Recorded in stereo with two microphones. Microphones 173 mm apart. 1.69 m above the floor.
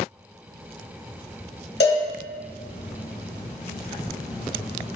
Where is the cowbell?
80° left, 0.8 m.